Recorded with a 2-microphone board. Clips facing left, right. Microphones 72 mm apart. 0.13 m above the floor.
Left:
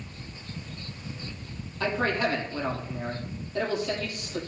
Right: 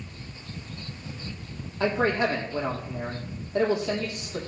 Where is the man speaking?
20° right (ahead or behind), 4 m.